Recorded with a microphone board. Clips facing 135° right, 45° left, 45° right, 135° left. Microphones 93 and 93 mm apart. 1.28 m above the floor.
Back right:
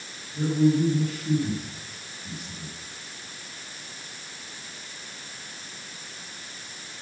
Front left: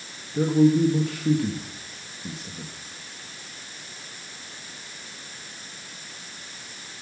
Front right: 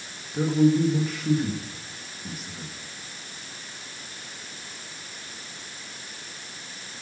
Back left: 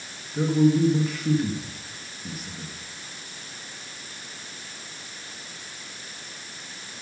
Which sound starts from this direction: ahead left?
A man speaking, at 0.3 s.